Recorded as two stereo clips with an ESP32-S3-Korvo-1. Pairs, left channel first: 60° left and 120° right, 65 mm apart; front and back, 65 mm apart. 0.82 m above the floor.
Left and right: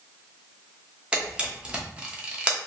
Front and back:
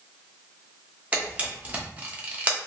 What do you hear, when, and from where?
1.1 s a camera shutter: 165° right, 0.7 m